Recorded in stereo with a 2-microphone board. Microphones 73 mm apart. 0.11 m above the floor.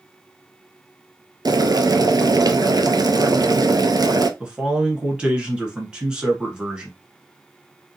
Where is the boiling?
60° right (ahead or behind), 0.6 m.